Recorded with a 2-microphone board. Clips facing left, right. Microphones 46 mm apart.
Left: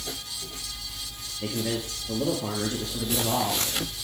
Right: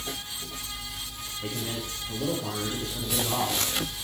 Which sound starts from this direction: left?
A man speaking, at 1.4 s.